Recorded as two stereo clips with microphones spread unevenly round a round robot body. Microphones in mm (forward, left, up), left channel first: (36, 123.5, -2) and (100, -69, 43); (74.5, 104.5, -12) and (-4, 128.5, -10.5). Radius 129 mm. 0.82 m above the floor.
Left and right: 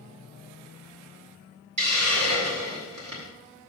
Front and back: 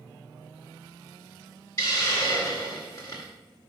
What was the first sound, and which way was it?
A hiss, 95° right.